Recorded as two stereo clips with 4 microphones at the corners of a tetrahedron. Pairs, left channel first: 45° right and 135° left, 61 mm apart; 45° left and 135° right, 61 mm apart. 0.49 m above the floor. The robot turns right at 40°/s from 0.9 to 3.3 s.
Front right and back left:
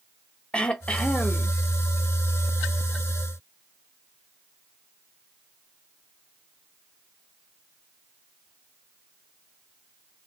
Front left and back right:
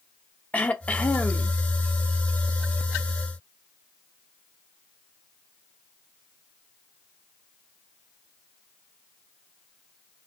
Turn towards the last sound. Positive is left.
turn(degrees=100)